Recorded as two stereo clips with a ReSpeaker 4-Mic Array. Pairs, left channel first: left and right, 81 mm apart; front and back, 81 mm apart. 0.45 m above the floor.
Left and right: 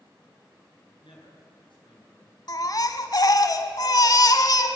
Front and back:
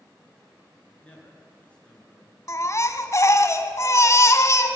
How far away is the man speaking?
About 7 m.